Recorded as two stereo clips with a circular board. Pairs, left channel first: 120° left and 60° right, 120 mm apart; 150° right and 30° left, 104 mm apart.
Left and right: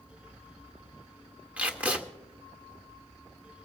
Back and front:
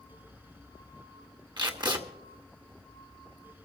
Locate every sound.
1.6 s tape being pulled: 15° left, 1.4 m